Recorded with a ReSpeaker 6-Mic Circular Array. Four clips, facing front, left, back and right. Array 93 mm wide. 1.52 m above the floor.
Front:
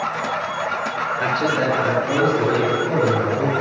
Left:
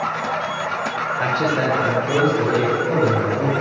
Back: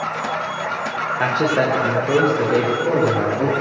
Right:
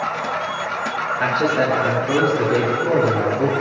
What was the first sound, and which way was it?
A man speaking, 175° left.